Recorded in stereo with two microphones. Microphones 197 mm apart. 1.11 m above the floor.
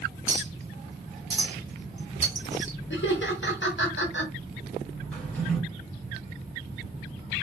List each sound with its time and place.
0.3 s a clink: 60° right (ahead or behind), 0.8 m
2.9 s laughter: 70° left (ahead or behind), 0.8 m
5.1 s a drawer: 10° left (ahead or behind), 0.9 m